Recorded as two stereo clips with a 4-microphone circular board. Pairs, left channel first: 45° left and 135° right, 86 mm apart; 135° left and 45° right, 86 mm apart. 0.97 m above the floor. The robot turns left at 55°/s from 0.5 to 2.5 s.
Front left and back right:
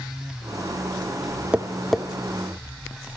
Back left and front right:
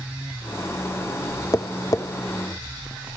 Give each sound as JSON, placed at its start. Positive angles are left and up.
{"t": 1.5, "sound": "tapping", "azimuth_deg": 155, "distance_m": 0.6}